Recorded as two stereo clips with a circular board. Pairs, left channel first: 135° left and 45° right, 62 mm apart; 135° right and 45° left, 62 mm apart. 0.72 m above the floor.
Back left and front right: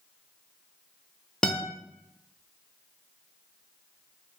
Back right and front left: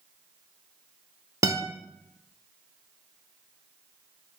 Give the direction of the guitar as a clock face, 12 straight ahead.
10 o'clock.